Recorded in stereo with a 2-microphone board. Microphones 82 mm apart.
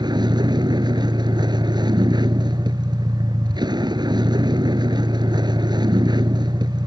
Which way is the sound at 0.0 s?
65° right (ahead or behind).